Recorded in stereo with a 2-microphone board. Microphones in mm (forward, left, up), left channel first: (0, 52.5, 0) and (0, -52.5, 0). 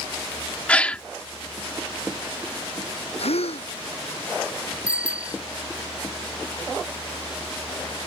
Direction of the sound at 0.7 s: 10° left (ahead or behind).